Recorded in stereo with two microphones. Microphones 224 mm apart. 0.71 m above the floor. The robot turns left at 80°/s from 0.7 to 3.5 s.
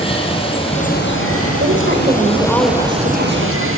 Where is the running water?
155° left, 3.5 m; by 3.8 s 70° right, 3.5 m.